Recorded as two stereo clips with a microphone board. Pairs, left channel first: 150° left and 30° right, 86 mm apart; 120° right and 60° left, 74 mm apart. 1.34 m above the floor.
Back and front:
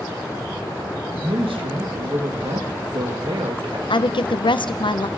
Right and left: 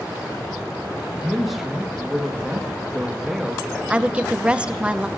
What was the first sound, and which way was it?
A man speaking, 30° right.